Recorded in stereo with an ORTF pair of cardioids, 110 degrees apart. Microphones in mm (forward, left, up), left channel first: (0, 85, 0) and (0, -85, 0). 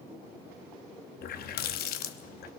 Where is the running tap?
65° left, 0.9 m.